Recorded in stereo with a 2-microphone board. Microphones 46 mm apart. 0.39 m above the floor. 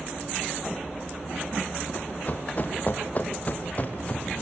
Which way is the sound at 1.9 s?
40° left (ahead or behind).